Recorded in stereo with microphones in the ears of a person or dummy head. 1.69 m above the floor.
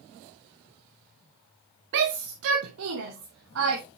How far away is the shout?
About 0.7 m.